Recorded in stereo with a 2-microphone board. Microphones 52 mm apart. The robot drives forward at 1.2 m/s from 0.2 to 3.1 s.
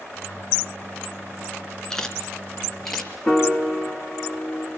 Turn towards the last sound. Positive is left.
turn(degrees=0)  # may be behind; listen again after turning